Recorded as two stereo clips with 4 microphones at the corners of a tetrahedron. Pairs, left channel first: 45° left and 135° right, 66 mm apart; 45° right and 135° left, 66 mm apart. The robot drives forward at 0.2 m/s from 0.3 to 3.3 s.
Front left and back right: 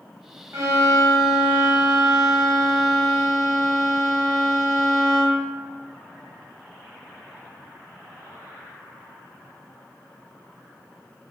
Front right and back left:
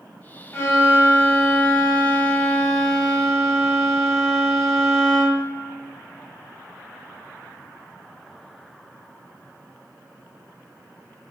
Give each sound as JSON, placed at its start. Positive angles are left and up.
{"t": 0.5, "sound": "a violin", "azimuth_deg": -90, "distance_m": 0.8}